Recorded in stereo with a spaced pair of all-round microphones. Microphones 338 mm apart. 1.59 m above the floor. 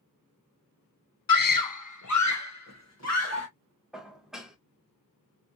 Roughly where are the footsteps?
I don't hear footsteps.